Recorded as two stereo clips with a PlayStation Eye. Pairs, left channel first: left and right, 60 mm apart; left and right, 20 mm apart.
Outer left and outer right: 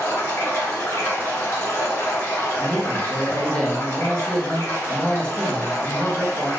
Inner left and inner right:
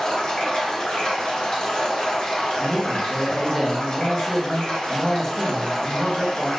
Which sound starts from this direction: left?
Running water, at 0.0 s.